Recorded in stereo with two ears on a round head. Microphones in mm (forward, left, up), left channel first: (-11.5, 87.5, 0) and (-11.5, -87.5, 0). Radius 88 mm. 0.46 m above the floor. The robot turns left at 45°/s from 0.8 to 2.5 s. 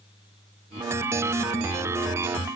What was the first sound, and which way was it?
Only background noise.